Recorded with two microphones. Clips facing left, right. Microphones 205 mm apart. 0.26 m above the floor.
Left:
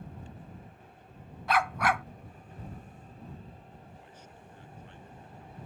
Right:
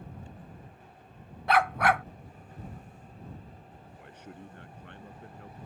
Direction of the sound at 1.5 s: 60° right (ahead or behind).